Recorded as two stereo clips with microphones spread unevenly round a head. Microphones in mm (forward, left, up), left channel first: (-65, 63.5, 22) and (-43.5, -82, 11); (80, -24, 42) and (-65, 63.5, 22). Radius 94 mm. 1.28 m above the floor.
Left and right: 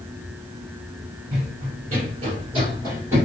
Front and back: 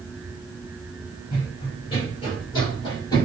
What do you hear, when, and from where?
1.3 s running footsteps: 70° right, 1.7 m; by 3.3 s 10° right, 1.4 m